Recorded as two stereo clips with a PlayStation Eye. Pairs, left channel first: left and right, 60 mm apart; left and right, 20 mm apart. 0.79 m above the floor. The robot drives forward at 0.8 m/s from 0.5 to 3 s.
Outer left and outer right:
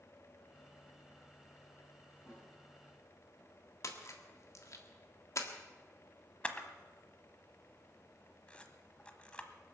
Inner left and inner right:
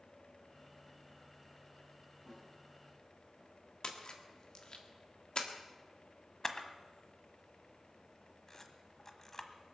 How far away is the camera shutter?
About 1.2 m.